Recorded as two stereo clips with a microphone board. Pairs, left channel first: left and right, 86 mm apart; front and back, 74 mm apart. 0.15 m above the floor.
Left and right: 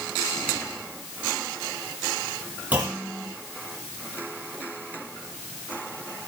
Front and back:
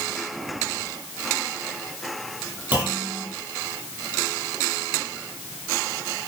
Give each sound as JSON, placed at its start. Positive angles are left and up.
{"t": 2.7, "sound": "a clunk", "azimuth_deg": -145, "distance_m": 1.5}